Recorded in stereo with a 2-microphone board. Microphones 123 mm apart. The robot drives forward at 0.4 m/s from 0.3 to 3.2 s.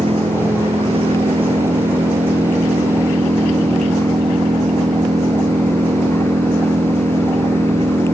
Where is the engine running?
50° right (ahead or behind); by 8.2 s 45° right (ahead or behind).